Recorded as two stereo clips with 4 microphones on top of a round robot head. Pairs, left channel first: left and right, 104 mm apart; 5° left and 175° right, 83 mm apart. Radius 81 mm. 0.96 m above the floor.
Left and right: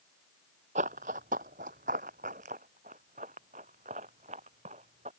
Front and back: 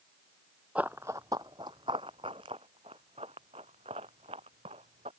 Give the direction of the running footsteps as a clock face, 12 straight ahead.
3 o'clock.